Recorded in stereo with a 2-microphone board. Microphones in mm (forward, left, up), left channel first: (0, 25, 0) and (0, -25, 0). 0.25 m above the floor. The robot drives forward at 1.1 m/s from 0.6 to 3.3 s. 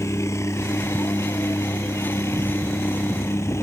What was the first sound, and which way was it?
A helicopter, 70° left (ahead or behind).